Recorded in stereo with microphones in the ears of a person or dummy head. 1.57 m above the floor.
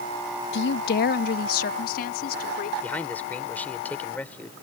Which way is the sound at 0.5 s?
65° left (ahead or behind).